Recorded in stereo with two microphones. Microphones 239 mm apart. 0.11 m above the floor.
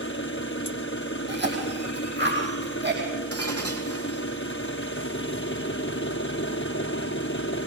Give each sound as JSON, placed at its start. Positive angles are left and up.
{"t": 0.0, "sound": "an engine running", "side_deg": 55, "distance_m": 1.4}
{"t": 1.3, "sound": "a cough", "side_deg": -45, "distance_m": 4.5}
{"t": 3.3, "sound": "breaking glass", "side_deg": -80, "distance_m": 2.0}